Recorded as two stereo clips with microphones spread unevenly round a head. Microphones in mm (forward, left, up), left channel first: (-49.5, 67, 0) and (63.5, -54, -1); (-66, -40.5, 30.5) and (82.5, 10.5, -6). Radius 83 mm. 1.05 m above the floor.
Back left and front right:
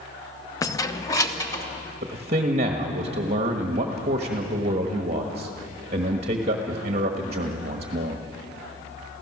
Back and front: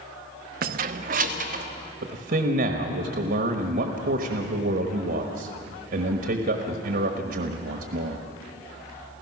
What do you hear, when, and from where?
0.6 s keys jangling: 60° left, 0.6 m
2.0 s a man speaking: 5° left, 1.3 m